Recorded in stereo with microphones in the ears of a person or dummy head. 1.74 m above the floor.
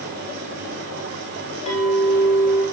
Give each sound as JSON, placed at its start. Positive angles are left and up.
{"t": 0.0, "sound": "a fan", "side_deg": -55, "distance_m": 1.6}
{"t": 1.7, "sound": "a clink", "side_deg": 40, "distance_m": 2.0}